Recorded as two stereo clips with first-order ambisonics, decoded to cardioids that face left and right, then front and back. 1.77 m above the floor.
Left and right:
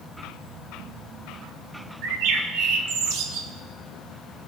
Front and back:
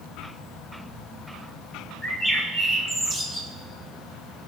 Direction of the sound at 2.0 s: 75° right.